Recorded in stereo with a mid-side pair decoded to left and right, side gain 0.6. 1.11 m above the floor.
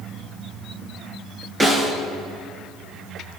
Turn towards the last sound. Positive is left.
turn(degrees=-15)